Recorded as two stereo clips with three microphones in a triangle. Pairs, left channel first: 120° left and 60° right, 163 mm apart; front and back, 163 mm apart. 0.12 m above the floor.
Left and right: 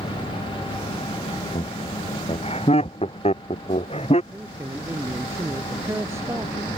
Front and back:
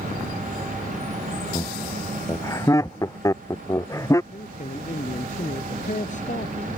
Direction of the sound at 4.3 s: 10° left.